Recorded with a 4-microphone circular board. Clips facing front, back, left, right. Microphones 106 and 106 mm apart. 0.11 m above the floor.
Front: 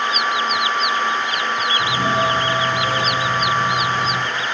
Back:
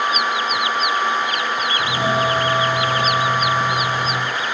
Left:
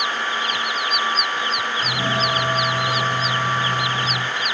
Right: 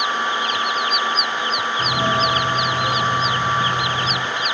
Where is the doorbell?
105° right, 4 m.